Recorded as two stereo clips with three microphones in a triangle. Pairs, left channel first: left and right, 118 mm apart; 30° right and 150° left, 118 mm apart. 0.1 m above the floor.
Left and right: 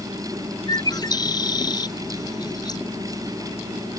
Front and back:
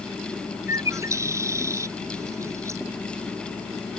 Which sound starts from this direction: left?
A bird, at 0.7 s.